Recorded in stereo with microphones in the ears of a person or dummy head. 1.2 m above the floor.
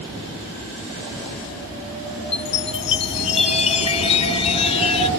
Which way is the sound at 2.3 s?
30° left (ahead or behind).